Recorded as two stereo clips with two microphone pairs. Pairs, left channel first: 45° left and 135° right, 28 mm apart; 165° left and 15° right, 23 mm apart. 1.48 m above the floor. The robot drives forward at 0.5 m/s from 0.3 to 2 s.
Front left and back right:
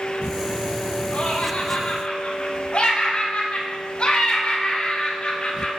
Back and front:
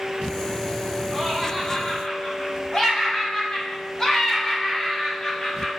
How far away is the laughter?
About 2.0 m.